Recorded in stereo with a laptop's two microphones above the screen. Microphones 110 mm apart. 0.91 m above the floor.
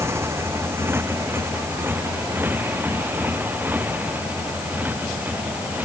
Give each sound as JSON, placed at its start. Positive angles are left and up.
{"t": 0.0, "sound": "a motorcycle", "side_deg": -25}